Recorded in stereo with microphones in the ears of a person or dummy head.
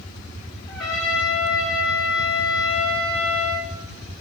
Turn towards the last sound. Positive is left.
turn(degrees=0)  # may be behind; listen again after turning